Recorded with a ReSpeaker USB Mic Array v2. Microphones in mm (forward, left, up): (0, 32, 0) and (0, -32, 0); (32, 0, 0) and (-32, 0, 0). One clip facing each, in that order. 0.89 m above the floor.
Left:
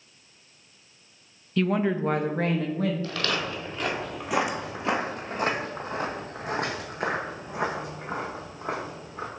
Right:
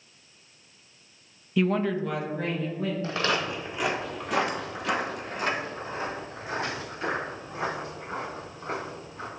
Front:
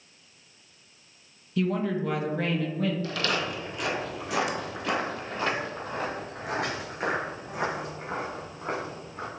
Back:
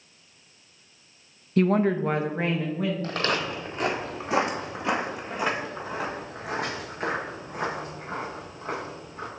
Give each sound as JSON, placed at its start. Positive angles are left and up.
{"t": 1.6, "sound": "a woman speaking", "azimuth_deg": -165, "distance_m": 0.5}
{"t": 3.0, "sound": "footsteps", "azimuth_deg": -140, "distance_m": 1.4}